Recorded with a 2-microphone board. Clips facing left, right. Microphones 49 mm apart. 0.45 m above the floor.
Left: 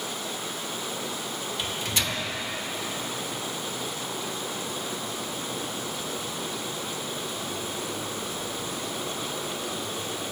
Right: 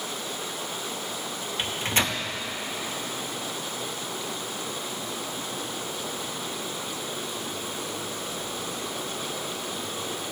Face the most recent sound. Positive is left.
turn(degrees=-40)  # may be behind; listen again after turning